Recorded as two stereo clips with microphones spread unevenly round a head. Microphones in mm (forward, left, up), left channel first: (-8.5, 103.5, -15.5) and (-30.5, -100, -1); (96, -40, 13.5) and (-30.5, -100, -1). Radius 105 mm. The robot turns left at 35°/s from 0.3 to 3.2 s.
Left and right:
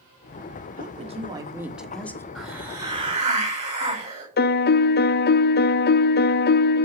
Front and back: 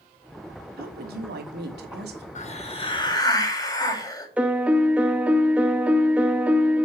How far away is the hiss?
About 7.5 m.